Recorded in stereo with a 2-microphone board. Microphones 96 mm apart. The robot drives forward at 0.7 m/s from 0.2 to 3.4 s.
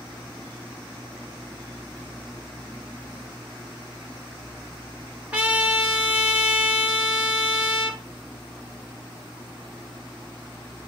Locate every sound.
5.3 s a trumpet: 15° right (ahead or behind), 1.4 m